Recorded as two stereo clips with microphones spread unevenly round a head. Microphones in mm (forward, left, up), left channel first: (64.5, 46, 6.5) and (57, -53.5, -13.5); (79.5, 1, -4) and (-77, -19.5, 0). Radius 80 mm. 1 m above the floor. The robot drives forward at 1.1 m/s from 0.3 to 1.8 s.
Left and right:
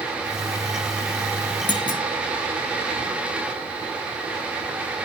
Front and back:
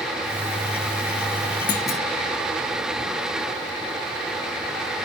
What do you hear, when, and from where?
1.7 s a clunk: 55° left, 1.0 m; by 2.0 s 65° left, 1.0 m